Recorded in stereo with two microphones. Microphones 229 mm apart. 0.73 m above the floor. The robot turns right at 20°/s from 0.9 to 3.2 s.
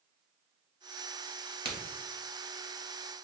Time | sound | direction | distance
1.6 | a crack | 45° right (ahead or behind) | 1.4 m